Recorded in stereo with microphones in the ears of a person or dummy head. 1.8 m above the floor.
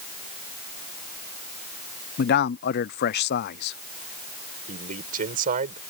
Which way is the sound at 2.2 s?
55° left (ahead or behind).